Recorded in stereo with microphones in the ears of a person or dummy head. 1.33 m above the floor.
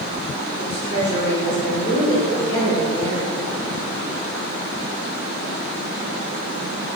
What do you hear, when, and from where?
0.6 s a woman speaking: 35° left (ahead or behind), 4.5 m; by 3.4 s 25° left (ahead or behind), 5.5 m